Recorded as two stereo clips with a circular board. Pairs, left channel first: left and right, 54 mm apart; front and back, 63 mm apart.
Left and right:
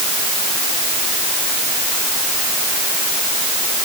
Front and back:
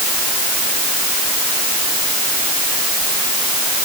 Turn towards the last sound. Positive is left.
No sound to turn to.